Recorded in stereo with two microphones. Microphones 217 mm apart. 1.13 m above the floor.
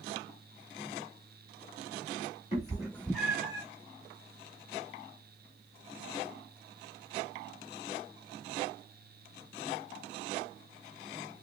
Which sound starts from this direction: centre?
A cat meowing, at 2.5 s.